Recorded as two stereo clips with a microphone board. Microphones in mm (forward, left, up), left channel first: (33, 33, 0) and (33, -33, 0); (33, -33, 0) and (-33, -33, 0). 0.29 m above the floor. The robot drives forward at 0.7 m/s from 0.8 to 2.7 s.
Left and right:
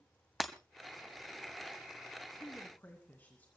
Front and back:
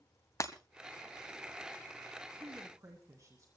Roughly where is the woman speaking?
Behind left.